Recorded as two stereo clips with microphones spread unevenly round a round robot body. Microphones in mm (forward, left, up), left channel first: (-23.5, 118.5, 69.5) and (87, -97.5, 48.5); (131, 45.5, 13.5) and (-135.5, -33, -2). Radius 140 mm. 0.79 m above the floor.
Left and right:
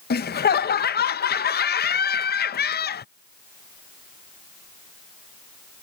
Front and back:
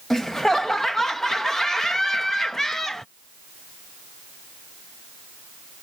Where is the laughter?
110° left.